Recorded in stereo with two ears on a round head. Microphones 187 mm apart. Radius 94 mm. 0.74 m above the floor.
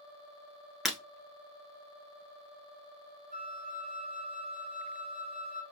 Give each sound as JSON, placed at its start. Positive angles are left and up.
{"t": 0.8, "sound": "breaking glass", "side_deg": 0, "distance_m": 1.1}
{"t": 3.3, "sound": "a flute", "side_deg": -40, "distance_m": 1.0}